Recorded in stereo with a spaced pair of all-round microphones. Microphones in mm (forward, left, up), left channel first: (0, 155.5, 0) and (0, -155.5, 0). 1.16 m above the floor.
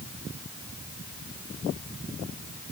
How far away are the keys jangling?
I don't hear keys jangling.